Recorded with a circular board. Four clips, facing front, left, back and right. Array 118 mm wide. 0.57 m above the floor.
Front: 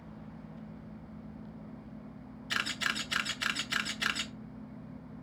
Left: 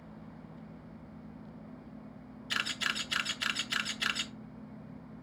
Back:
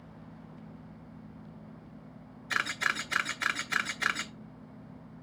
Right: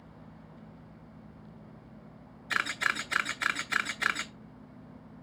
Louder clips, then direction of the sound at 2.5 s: Right 5 dB, back 4 dB; 115° right.